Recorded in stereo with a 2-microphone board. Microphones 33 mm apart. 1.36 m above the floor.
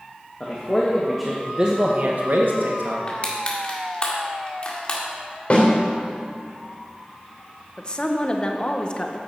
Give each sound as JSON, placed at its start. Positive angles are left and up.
{"t": 0.4, "sound": "a man speaking", "side_deg": 25, "distance_m": 1.5}
{"t": 3.1, "sound": "crushing", "side_deg": 30, "distance_m": 1.7}
{"t": 5.5, "sound": "a snare drum", "side_deg": 45, "distance_m": 3.0}
{"t": 7.8, "sound": "a woman speaking", "side_deg": 30, "distance_m": 0.8}